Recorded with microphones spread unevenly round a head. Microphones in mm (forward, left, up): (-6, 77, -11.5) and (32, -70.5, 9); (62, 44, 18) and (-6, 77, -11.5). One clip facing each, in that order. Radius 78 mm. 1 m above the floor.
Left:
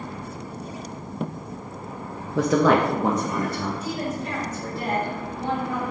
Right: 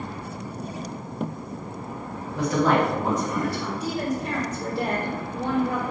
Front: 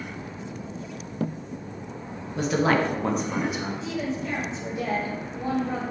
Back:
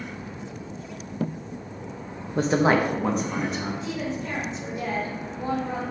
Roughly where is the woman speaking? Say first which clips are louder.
Right 2 dB, front 1 dB; behind right.